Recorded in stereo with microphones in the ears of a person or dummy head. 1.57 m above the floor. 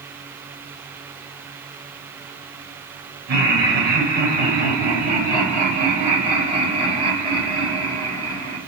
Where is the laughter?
55° right (ahead or behind), 9 m; by 8.6 s 25° right (ahead or behind), 10 m.